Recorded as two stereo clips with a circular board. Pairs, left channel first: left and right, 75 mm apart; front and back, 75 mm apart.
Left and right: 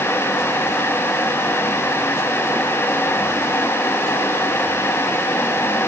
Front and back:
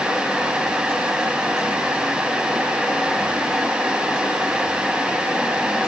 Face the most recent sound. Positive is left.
No sound to turn to.